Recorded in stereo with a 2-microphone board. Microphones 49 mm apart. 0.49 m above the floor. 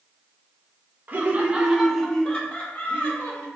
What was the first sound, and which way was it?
Laughter, 40° right (ahead or behind).